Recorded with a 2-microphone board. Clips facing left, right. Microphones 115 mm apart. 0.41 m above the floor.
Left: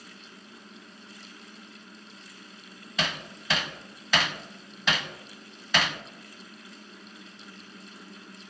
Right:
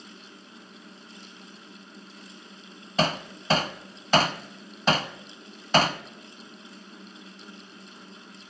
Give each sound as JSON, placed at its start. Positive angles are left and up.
{"t": 3.0, "sound": "hammering", "side_deg": -40, "distance_m": 0.7}